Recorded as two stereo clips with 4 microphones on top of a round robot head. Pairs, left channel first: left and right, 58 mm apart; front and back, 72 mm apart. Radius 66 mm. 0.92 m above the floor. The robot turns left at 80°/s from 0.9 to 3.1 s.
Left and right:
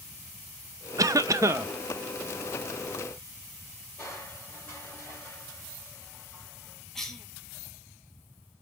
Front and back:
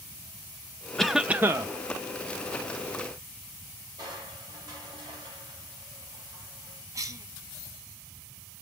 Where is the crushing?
160° left, 4 m.